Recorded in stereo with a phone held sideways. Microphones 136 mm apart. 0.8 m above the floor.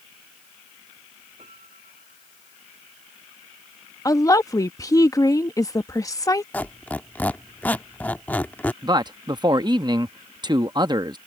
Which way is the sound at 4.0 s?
25° left (ahead or behind).